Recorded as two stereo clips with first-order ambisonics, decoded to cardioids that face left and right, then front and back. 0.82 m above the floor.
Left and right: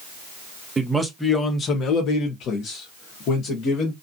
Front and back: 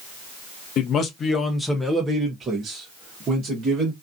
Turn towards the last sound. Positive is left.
turn(degrees=125)